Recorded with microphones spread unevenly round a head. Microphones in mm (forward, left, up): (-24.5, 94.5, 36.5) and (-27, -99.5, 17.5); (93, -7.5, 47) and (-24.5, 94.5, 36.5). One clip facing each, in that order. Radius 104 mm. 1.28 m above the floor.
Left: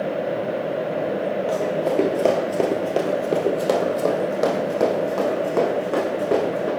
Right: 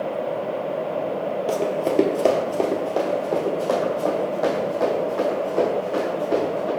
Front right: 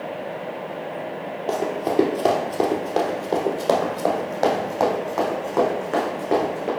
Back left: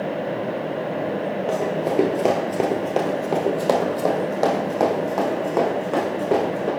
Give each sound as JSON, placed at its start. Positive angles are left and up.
{"t": 1.5, "sound": "running footsteps", "azimuth_deg": -125, "distance_m": 1.4}